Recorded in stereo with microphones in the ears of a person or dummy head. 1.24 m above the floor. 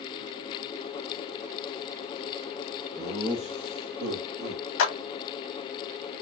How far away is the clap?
About 1.0 m.